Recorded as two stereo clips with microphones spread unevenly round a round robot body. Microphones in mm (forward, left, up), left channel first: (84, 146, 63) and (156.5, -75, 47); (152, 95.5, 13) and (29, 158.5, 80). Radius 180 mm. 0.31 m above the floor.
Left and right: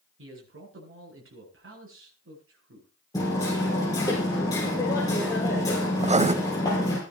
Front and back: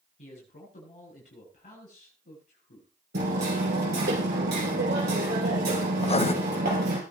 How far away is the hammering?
About 3 m.